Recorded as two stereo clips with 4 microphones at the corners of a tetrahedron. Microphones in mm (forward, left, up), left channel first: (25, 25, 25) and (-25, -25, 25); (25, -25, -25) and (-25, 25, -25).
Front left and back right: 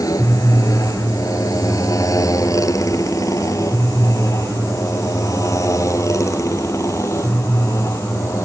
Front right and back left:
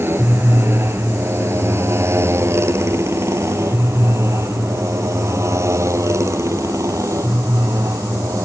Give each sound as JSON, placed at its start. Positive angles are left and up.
{"t": 0.0, "sound": "a motorcycle", "azimuth_deg": 80}